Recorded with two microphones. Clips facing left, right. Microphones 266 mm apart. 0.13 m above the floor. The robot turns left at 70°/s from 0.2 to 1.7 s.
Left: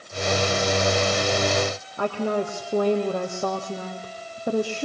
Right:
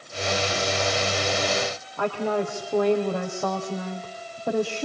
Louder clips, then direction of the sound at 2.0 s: Even; 15° left (ahead or behind).